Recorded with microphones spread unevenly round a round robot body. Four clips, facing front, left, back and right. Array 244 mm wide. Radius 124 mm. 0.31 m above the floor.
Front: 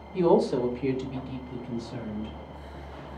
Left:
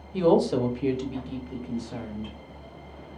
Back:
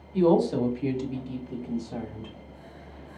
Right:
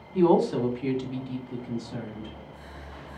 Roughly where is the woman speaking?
Left.